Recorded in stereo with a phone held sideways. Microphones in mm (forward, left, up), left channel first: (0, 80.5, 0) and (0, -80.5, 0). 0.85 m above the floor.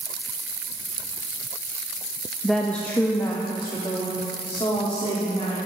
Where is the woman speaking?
Centre (ahead or behind), 0.6 m; by 5.6 s 35° left (ahead or behind), 2 m.